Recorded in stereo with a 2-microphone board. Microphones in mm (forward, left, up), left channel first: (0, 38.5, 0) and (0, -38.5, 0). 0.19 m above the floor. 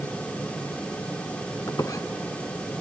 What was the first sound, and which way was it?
A squeak, 55° left (ahead or behind).